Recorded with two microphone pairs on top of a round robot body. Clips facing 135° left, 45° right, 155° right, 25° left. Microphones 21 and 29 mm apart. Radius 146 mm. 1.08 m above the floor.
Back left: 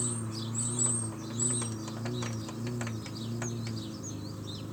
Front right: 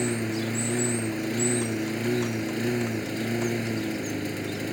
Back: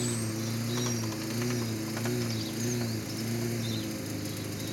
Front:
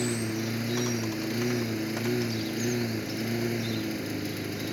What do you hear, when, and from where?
0.0 s a lawn mower: 40° right